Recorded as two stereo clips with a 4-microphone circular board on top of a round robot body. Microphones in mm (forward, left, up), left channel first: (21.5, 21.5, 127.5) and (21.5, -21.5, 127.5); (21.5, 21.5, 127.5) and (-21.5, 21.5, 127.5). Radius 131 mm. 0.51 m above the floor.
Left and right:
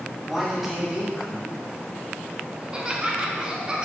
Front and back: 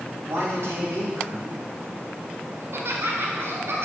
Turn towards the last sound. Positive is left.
turn(degrees=-160)